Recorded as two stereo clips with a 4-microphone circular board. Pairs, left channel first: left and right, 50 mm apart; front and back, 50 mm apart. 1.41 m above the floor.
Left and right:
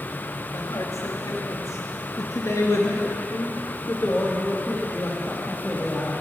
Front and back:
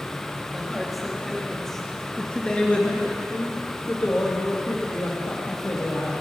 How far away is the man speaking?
About 2.5 m.